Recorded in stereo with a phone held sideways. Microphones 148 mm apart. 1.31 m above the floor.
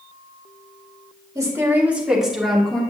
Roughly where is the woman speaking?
Right.